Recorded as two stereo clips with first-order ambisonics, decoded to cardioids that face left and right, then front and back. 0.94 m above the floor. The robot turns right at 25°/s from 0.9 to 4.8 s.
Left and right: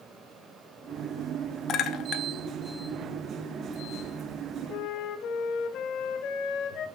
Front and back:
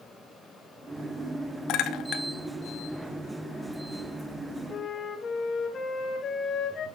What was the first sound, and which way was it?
A clink, 35° left.